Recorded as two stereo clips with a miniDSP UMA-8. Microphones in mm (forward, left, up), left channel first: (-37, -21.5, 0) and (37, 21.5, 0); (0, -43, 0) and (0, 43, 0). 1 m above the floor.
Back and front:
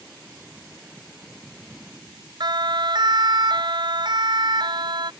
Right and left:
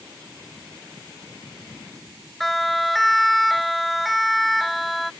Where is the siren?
Straight ahead.